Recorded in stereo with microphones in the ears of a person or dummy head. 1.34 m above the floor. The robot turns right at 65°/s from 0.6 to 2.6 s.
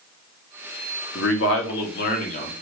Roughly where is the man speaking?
Ahead left.